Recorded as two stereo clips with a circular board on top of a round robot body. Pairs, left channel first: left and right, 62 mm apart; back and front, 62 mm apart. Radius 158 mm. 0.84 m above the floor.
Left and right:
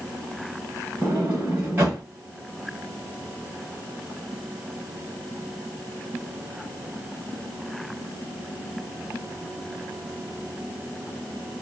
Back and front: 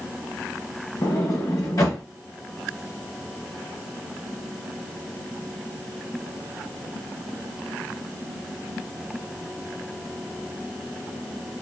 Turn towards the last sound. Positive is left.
turn(degrees=-145)